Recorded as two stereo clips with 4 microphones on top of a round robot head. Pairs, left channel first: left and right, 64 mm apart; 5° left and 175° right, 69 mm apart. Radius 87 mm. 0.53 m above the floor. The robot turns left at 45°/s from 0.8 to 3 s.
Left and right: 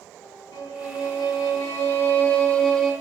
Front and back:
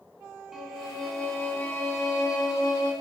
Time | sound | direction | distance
0.5 | a violin | 95° left | 5.5 m